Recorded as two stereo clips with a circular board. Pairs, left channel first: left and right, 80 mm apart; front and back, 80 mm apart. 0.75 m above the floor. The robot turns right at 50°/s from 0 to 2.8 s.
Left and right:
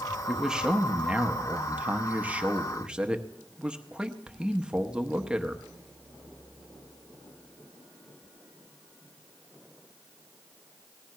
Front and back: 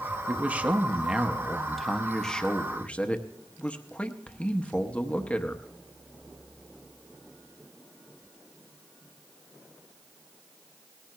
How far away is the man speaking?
About 0.9 m.